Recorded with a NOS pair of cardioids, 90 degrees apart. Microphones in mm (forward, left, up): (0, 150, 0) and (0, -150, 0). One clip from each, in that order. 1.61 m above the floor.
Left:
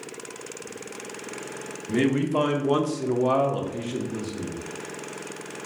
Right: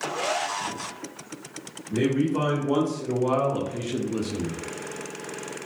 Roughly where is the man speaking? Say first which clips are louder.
Left 1 dB; ahead left.